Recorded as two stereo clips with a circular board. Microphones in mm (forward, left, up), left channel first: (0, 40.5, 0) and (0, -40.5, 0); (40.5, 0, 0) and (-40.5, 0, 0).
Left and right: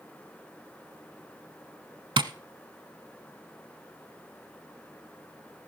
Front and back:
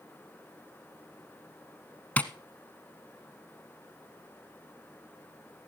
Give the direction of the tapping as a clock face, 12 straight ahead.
2 o'clock.